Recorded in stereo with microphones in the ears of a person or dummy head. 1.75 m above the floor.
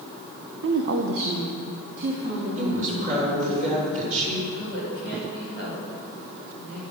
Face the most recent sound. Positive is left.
turn(degrees=-70)  # may be behind; listen again after turning